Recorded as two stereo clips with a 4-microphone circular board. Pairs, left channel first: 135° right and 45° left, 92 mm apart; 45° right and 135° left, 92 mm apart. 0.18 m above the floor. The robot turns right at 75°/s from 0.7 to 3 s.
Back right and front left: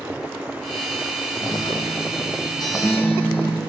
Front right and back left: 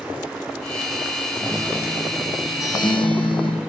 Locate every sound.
1.4 s a guitar: 170° left, 1.6 m; by 3.6 s 70° right, 1.6 m